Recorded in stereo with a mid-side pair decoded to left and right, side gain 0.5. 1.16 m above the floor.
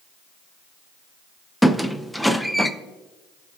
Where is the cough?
I don't hear a cough.